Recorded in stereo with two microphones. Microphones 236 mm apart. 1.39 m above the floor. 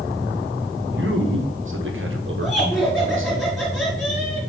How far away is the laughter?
About 2.5 m.